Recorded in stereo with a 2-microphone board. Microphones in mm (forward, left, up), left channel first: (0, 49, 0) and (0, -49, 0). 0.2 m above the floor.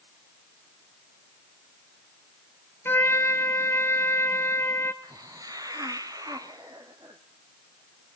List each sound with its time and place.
2.9 s a trumpet: 25° left (ahead or behind), 1.5 m
5.0 s a hiss: 40° right (ahead or behind), 1.5 m